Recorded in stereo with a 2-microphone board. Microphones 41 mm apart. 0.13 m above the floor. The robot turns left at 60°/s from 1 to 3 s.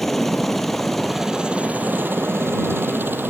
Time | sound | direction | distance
0.0 | a helicopter | centre (ahead or behind) | ?